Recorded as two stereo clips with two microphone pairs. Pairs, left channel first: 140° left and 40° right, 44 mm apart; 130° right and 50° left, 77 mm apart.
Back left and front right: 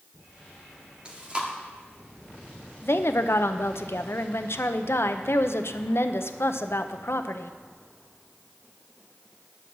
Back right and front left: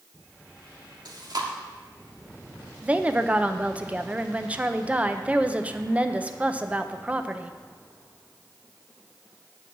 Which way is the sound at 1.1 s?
25° left.